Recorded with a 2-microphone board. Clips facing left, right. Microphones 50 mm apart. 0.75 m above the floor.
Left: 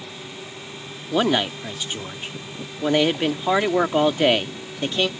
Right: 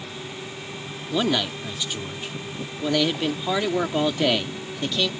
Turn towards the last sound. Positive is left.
turn(degrees=30)  # may be behind; listen again after turning